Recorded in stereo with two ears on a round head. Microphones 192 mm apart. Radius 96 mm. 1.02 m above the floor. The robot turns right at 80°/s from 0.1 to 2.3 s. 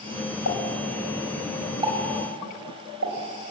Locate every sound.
0.5 s a pop: 85° left, 5 m; by 3.5 s 60° right (ahead or behind), 5 m